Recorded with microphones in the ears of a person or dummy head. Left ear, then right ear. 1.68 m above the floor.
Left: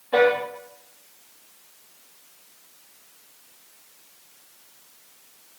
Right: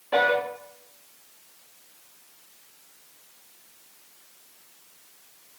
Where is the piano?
20° right (ahead or behind), 0.9 m.